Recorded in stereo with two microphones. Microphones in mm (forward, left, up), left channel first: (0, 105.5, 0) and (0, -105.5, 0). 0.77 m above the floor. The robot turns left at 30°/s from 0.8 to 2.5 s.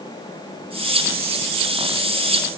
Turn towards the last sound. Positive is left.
No sound to turn to.